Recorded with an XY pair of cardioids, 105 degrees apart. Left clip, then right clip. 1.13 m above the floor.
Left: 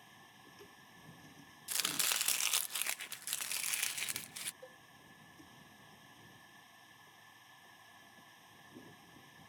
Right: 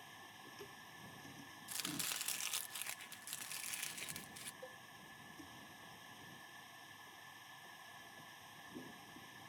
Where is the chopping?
55° left.